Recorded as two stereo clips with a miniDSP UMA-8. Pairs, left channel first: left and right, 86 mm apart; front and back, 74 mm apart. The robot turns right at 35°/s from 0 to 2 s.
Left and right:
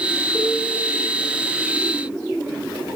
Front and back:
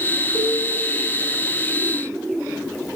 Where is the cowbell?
25° right, 2.5 m; by 0.6 s 20° right, 2.5 m.